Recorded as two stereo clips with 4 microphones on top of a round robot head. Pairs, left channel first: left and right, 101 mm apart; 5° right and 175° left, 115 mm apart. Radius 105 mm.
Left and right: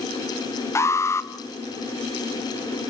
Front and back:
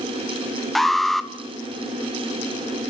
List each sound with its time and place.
0.8 s an alarm: 80° left, 1.5 m